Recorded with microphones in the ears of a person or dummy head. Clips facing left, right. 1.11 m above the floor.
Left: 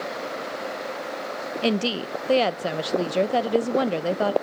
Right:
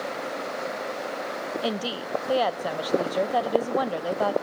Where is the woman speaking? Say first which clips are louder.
Left 8 dB; 25° left (ahead or behind), 0.6 m.